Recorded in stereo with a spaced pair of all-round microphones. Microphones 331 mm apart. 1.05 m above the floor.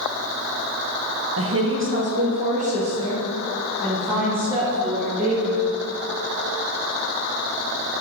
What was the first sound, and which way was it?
A woman speaking, 45° right (ahead or behind).